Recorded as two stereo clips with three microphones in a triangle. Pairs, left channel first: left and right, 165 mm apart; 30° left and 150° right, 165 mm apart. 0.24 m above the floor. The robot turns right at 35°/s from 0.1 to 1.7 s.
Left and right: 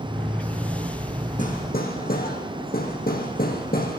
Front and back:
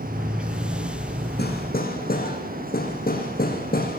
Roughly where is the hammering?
Ahead left.